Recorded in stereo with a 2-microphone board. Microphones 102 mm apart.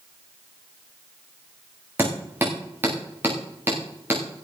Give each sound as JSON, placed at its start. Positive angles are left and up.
{"t": 2.0, "sound": "hammering", "side_deg": -20, "distance_m": 7.0}